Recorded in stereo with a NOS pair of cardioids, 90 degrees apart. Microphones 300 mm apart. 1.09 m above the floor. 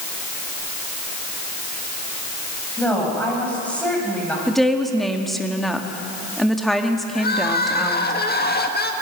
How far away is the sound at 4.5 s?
About 1.9 m.